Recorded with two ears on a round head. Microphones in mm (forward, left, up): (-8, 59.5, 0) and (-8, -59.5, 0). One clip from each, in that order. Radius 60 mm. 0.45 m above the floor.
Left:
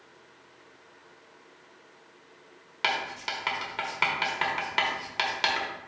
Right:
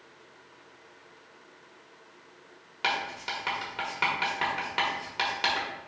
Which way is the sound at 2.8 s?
20° left (ahead or behind).